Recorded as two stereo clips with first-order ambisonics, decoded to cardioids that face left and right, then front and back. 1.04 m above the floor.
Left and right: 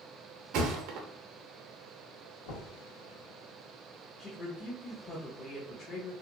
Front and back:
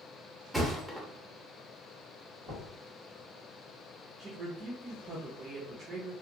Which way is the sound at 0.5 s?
95° right.